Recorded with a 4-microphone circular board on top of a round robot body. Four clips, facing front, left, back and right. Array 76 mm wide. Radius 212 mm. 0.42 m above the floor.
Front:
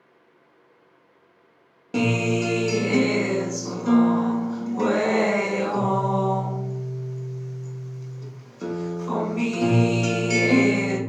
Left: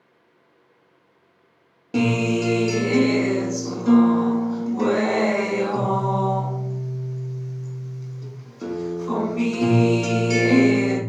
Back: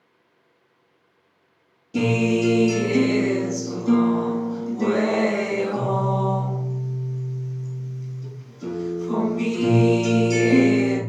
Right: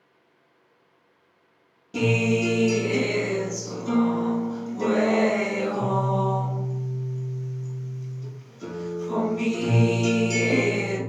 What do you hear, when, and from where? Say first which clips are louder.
1.9 s a guitar: left 2 dB, back 2 dB; 35° left, 0.8 m